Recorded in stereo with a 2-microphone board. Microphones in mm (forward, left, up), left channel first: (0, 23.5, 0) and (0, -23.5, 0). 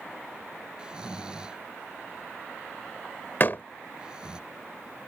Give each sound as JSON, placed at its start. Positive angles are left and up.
{"t": 0.8, "sound": "snoring", "side_deg": -15}
{"t": 3.4, "sound": "a door slam", "side_deg": 45}